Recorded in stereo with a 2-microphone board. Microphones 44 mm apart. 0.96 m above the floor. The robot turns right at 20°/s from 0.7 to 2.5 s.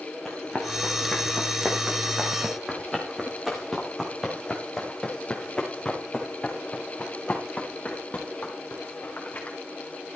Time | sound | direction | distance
0.2 | running footsteps | 10° left (ahead or behind) | 4 m